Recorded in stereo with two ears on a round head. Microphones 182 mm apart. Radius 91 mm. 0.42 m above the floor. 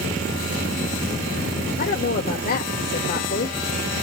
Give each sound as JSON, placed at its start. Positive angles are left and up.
{"t": 1.8, "sound": "a woman speaking", "side_deg": 45, "distance_m": 1.1}